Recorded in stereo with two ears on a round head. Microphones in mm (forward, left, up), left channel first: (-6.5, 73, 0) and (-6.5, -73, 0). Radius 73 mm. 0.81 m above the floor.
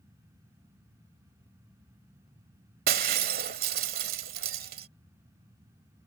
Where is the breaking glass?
60° right (ahead or behind).